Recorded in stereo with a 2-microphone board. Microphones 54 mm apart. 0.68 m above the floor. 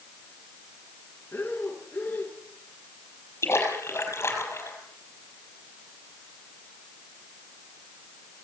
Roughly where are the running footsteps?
I don't hear running footsteps.